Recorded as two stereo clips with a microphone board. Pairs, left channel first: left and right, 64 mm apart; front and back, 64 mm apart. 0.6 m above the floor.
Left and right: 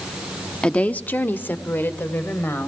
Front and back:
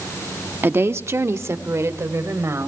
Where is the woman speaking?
150° left, 0.7 m; by 2.7 s 140° left, 2.5 m.